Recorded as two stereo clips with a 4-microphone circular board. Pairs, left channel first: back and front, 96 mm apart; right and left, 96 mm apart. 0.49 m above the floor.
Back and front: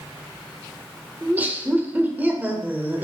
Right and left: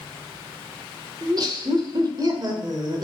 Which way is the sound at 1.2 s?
65° left.